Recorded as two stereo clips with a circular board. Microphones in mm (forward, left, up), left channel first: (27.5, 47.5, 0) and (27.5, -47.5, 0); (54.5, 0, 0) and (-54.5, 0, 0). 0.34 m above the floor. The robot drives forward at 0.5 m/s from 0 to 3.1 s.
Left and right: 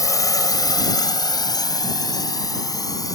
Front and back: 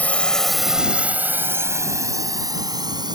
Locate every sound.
0.0 s a drone: 65° left; by 3.1 s 135° left